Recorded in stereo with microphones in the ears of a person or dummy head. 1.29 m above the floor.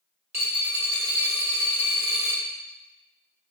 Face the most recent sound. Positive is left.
turn(degrees=-10)  # may be behind; listen again after turning